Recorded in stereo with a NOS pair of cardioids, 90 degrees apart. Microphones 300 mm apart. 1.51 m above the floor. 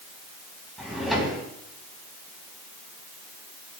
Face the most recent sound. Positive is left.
turn(degrees=0)